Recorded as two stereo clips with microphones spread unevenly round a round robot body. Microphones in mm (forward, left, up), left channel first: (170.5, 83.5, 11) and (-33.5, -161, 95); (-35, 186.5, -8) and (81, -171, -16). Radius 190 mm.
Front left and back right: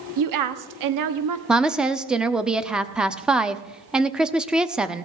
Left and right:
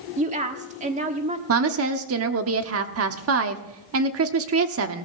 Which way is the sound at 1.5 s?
30° right.